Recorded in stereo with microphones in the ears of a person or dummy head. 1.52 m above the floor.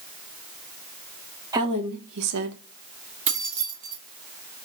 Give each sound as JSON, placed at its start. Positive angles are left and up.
{"t": 1.5, "sound": "a woman speaking", "side_deg": -15, "distance_m": 1.1}
{"t": 3.3, "sound": "keys jangling", "side_deg": -35, "distance_m": 1.1}